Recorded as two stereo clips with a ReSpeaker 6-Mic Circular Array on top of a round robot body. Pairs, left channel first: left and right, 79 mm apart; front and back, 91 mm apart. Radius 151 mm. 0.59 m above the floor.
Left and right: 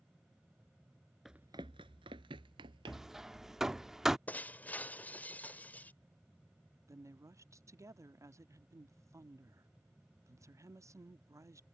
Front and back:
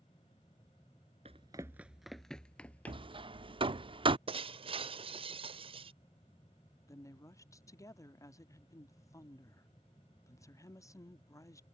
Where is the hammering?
175° right.